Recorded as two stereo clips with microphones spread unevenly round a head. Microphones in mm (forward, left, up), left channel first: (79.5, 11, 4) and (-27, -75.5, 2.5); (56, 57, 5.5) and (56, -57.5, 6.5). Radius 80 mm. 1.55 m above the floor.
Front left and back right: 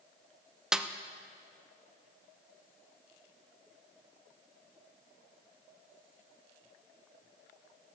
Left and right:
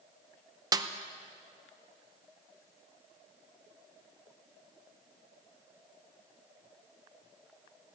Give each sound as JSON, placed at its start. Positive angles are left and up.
{"t": 0.7, "sound": "a snare drum", "azimuth_deg": -55, "distance_m": 0.7}